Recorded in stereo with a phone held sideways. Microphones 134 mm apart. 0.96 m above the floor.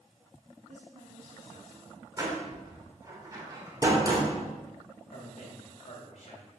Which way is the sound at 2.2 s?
30° right (ahead or behind).